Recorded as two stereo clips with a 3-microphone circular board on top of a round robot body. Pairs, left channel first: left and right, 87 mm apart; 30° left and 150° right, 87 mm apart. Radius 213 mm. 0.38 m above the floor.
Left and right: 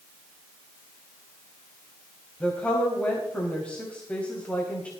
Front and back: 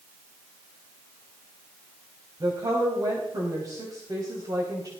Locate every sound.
2.4 s a woman speaking: 165° left, 3.5 m